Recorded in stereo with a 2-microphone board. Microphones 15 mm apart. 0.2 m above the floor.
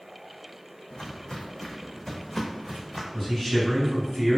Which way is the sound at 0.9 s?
65° left (ahead or behind).